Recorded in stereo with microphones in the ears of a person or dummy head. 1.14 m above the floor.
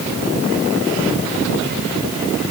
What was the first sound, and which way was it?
Only background noise.